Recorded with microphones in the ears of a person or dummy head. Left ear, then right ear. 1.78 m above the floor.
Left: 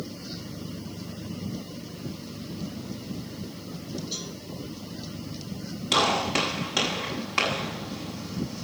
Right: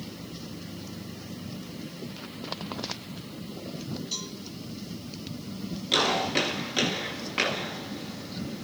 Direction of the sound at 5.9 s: 40° left (ahead or behind).